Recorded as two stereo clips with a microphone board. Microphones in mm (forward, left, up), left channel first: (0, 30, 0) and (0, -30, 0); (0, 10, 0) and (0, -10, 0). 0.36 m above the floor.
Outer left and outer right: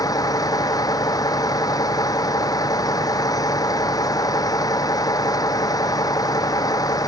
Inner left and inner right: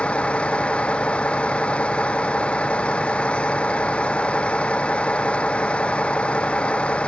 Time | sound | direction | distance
0.0 | a vehicle | 85° left | ?